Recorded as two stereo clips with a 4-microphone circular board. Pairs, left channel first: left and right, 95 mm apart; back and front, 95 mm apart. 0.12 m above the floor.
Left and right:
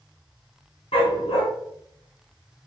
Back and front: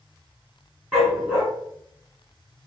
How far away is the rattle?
I don't hear a rattle.